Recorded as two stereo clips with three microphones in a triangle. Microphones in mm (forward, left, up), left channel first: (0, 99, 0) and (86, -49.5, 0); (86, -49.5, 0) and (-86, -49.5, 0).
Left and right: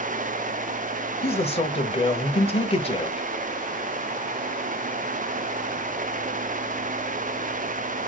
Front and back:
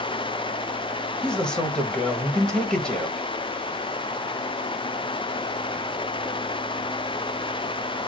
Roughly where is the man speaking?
Left.